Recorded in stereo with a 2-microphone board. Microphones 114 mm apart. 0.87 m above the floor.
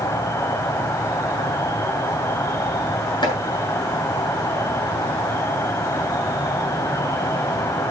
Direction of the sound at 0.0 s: 25° left (ahead or behind).